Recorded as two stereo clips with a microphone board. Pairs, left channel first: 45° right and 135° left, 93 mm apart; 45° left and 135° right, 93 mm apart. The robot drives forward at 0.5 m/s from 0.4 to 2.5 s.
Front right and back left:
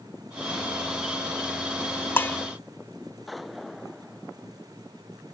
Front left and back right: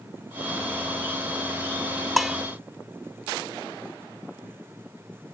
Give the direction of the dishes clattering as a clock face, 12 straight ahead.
2 o'clock.